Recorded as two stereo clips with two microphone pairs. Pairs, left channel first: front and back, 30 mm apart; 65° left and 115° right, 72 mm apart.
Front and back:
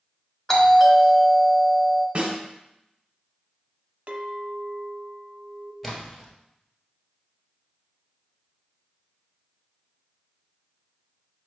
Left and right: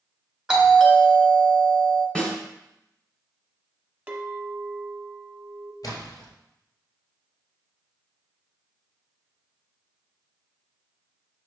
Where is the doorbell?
40° right, 1.6 m.